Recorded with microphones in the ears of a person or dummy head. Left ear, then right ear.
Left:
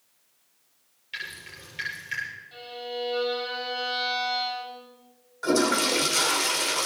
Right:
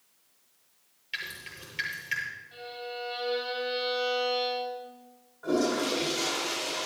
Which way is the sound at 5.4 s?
60° left (ahead or behind).